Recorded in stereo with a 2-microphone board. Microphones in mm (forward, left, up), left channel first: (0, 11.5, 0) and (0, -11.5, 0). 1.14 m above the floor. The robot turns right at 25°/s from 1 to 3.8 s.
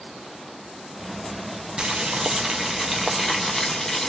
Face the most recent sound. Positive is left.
turn(degrees=20)